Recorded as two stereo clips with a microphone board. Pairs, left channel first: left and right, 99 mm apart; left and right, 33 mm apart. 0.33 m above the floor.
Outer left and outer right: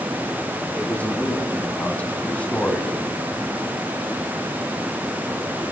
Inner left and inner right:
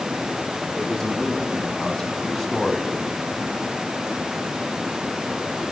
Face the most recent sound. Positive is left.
turn(degrees=15)  # may be behind; listen again after turning